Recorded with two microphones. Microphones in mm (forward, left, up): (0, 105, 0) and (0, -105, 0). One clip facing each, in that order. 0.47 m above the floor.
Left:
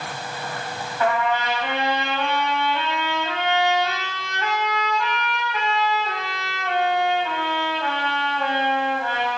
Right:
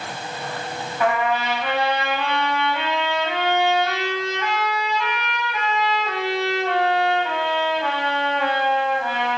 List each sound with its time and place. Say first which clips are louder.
1.0 s a trumpet: right 1 dB; 10° right (ahead or behind), 2.5 m